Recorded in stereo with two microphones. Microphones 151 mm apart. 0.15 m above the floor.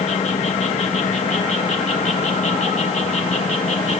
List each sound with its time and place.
0.0 s an insect: 50° left (ahead or behind), 2 m